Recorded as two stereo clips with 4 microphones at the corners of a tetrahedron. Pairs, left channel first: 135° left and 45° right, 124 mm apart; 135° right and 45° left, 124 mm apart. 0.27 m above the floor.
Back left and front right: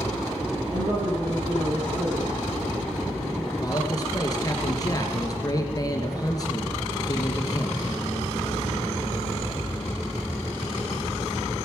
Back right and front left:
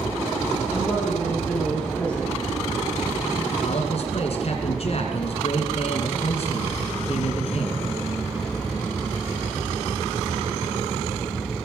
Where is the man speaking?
165° right, 3 m.